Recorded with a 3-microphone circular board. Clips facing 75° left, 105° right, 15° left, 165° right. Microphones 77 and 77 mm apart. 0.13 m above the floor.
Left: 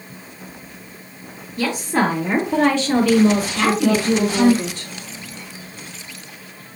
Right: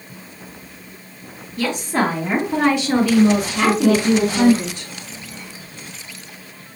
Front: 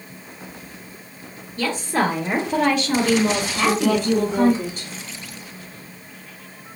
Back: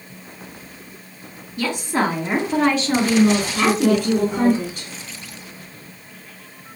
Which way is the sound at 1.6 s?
145° left.